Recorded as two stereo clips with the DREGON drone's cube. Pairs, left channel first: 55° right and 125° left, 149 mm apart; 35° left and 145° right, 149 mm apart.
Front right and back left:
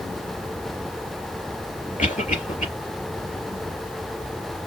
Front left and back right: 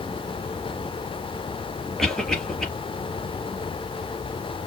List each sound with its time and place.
2.0 s a cough: 55° right, 3.5 m